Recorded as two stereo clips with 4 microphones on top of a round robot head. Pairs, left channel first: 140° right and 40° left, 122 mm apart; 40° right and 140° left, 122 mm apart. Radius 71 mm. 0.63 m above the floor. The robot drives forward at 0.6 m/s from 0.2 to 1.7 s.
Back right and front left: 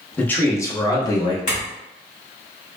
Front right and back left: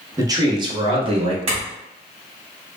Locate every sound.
0.2 s a man speaking: 155° left, 0.8 m; by 1.4 s 170° left, 1.2 m
1.5 s a clink: 170° right, 1.7 m